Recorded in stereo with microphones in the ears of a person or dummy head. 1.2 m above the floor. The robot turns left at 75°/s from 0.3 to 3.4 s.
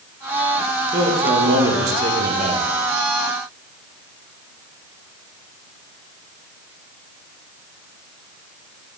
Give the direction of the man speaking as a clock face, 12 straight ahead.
1 o'clock.